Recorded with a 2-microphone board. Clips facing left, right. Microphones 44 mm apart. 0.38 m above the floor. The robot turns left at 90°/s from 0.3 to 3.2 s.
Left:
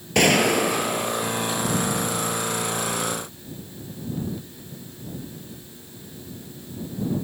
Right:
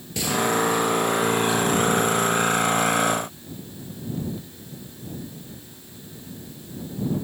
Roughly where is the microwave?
I don't hear a microwave.